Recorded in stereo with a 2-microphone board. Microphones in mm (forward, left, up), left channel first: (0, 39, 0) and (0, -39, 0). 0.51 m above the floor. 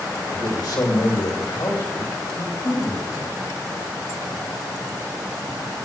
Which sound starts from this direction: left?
A man speaking, at 0.3 s.